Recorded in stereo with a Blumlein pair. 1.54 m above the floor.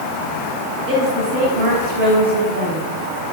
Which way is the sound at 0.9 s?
40° right.